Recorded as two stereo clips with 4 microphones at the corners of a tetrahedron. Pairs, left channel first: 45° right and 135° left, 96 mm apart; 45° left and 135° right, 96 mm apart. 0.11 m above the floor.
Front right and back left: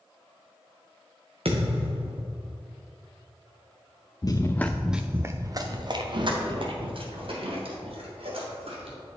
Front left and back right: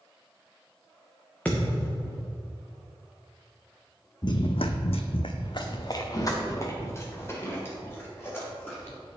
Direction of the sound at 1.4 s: 120° left.